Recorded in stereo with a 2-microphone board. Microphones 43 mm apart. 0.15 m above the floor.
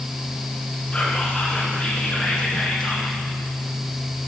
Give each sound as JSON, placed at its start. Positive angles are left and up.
{"t": 0.9, "sound": "whispering", "side_deg": 10, "distance_m": 1.6}